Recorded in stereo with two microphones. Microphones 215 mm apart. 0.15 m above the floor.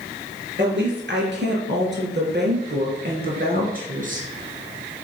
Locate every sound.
0.6 s a woman speaking: 60° right (ahead or behind), 3.5 m; by 4.3 s 40° right (ahead or behind), 3 m